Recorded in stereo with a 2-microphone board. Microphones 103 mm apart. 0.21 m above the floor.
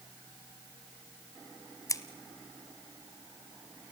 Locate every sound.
1.9 s scissors: 30° left (ahead or behind), 1.1 m